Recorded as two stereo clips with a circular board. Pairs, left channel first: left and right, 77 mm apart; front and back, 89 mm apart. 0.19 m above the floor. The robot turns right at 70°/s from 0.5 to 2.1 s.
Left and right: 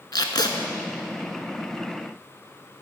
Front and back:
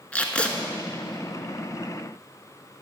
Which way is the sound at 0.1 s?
75° left.